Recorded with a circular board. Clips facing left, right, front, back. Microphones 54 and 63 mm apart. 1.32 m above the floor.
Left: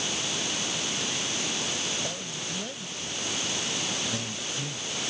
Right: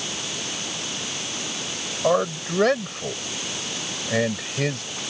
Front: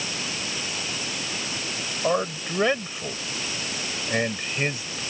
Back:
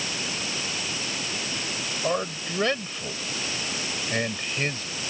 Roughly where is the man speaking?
Right.